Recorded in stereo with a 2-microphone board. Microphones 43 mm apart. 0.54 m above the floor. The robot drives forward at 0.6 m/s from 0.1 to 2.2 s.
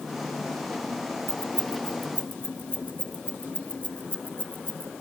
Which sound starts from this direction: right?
Keys jangling, at 1.3 s.